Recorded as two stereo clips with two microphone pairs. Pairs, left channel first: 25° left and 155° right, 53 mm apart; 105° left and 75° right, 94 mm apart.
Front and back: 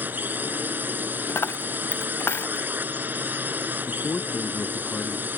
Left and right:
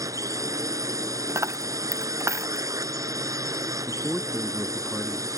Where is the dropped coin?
15° right.